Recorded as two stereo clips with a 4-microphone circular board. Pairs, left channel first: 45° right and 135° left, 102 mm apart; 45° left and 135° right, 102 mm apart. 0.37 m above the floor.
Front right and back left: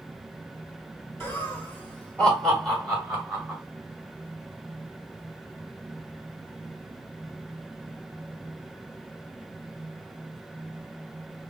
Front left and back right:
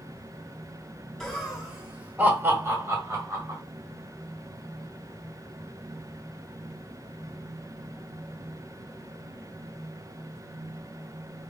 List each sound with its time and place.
1.2 s laughter: 35° right, 1.4 m; by 3.6 s 145° right, 1.8 m